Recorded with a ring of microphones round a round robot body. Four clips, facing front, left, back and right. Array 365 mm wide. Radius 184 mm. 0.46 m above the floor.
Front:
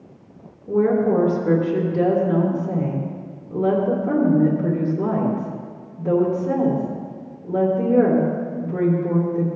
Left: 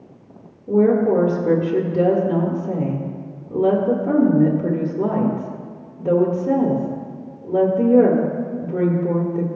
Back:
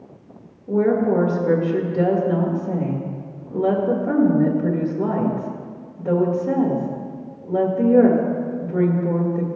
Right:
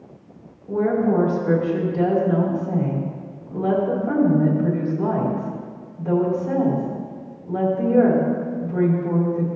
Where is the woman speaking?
60° left, 1.7 m.